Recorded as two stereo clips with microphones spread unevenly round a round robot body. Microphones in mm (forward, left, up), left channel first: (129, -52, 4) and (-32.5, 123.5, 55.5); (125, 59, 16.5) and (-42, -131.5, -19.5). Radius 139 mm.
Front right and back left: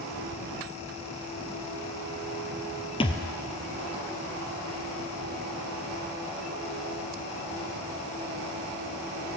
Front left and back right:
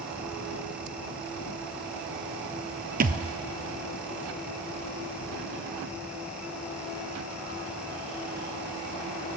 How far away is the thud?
About 0.9 m.